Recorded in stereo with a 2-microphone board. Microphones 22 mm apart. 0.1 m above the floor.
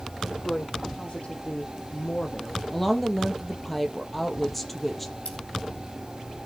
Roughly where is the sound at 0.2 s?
Left.